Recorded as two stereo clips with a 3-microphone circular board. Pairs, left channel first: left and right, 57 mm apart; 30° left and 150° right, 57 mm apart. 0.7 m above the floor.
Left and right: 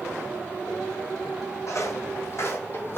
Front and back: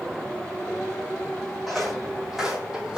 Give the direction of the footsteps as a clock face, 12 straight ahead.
8 o'clock.